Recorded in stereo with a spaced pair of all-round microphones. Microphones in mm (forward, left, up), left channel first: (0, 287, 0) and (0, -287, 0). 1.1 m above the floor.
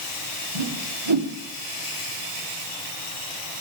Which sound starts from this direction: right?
A whoosh, at 0.6 s.